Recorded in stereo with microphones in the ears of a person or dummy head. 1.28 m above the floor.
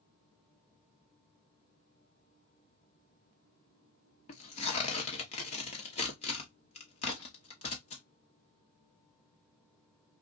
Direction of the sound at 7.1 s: 15° left (ahead or behind).